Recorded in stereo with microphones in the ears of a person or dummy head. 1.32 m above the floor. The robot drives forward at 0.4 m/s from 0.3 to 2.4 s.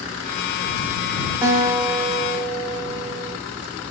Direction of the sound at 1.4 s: 15° right (ahead or behind).